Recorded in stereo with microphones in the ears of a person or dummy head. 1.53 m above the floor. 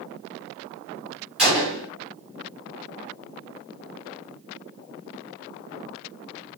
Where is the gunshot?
Centre (ahead or behind), 4.5 m.